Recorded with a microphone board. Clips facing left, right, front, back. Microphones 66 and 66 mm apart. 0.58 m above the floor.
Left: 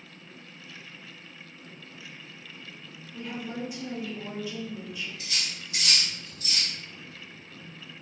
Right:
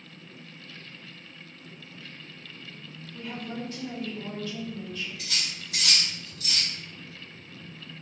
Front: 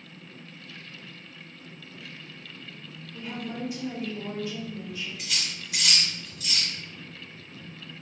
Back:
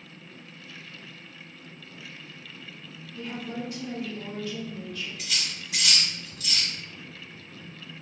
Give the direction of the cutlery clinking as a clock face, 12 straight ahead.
3 o'clock.